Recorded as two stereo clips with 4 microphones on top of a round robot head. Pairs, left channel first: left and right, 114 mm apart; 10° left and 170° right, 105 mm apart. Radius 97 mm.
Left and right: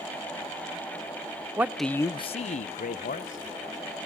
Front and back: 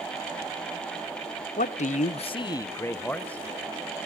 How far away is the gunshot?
I don't hear a gunshot.